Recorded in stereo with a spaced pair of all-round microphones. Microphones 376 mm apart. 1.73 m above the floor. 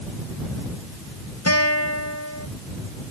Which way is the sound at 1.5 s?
40° left (ahead or behind).